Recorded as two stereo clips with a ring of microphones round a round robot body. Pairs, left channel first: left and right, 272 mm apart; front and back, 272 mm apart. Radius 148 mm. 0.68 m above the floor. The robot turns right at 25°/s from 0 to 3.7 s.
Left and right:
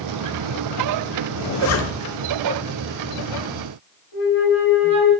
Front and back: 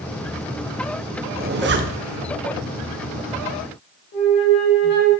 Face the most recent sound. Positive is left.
turn(degrees=50)